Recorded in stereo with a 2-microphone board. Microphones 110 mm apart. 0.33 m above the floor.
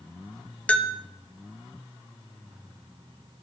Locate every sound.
0.7 s a bell: 10° left (ahead or behind), 0.9 m